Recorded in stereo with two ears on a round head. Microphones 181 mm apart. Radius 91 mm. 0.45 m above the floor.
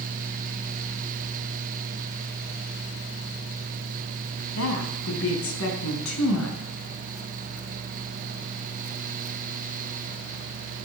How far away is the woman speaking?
About 4 m.